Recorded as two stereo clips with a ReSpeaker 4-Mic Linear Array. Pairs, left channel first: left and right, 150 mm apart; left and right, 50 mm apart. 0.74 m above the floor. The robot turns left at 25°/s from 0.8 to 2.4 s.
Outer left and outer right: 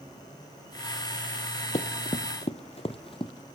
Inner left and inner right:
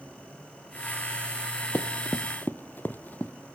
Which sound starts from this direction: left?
Running footsteps, at 1.7 s.